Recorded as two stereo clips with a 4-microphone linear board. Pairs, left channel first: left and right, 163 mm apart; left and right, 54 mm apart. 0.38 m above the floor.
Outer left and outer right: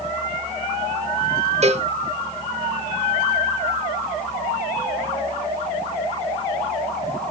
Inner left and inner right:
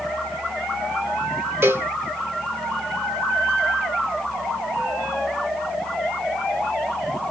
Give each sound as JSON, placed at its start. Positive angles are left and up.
{"t": 1.6, "sound": "a cowbell", "side_deg": -40, "distance_m": 0.5}